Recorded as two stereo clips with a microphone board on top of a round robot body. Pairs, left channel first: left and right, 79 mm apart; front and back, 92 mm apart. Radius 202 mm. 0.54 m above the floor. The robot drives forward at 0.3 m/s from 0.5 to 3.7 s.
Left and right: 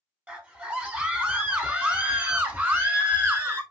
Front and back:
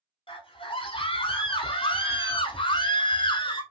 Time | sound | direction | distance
0.3 | a scream | 15° right | 2.5 m